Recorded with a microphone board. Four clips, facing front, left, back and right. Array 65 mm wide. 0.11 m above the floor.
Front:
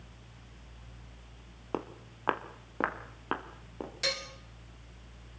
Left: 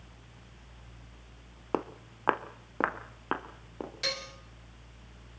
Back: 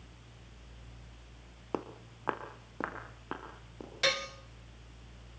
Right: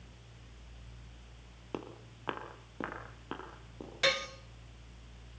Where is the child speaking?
I don't hear a child speaking.